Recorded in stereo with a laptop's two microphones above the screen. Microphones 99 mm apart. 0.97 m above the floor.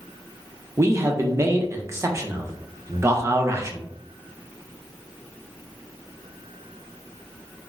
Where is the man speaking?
30° right (ahead or behind), 0.7 m.